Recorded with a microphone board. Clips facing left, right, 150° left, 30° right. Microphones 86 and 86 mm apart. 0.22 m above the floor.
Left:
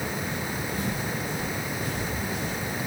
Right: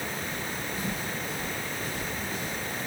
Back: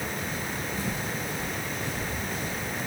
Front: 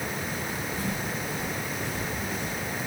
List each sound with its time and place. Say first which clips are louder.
0.3 s footsteps: left 3 dB, even; 50° left, 3.5 m; by 2.6 s 70° left, 3 m